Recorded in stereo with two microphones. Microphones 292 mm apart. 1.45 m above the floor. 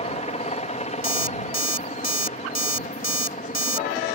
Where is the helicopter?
25° left (ahead or behind); by 4.2 s 30° left (ahead or behind).